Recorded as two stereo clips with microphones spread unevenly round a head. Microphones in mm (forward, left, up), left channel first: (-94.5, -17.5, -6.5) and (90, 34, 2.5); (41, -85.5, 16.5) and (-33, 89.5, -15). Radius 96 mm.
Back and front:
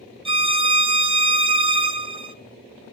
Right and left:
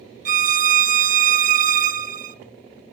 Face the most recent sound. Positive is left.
turn(degrees=65)